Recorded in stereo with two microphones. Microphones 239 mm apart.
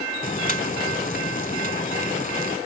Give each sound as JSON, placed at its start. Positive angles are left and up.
{"t": 0.2, "sound": "boiling", "side_deg": 35}